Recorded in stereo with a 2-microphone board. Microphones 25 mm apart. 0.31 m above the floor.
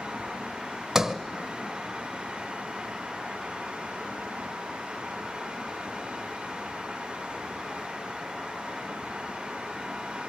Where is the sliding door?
20° right (ahead or behind), 1.3 m.